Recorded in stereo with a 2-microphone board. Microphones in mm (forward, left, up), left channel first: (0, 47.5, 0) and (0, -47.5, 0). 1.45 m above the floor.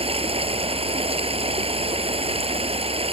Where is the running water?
85° right.